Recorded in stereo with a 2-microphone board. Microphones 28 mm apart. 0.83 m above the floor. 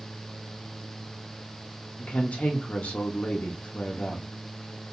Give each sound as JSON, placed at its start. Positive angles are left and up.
{"t": 2.0, "sound": "a woman speaking", "side_deg": 60, "distance_m": 0.7}